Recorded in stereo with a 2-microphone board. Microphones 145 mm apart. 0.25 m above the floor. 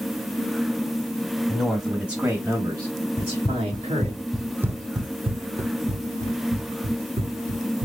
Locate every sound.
1.5 s a man speaking: 5° left (ahead or behind), 1.3 m; by 4.2 s 45° right (ahead or behind), 1.6 m
3.2 s running footsteps: 55° left (ahead or behind), 0.8 m; by 7.9 s 70° right (ahead or behind), 1.9 m